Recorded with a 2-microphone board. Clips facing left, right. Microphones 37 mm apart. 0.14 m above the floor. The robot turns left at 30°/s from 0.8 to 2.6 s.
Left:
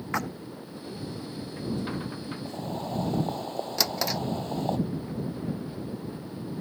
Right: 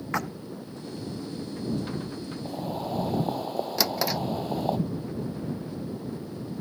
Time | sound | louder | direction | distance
0.1 | a splash | even | centre (ahead or behind) | ?
2.5 | boiling | right 3 dB | 10° right (ahead or behind) | ?
3.8 | a drawer | right 1 dB | 5° right (ahead or behind) | ?